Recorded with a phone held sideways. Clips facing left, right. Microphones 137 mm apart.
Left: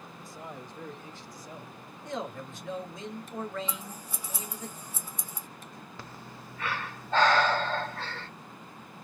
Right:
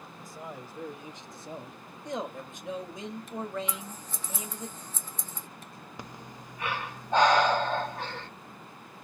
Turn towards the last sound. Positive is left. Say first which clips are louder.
# right 4 dB
turn(degrees=-15)  # may be behind; listen again after turning